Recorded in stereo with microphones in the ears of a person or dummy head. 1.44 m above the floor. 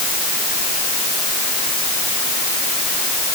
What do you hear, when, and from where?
Only background noise.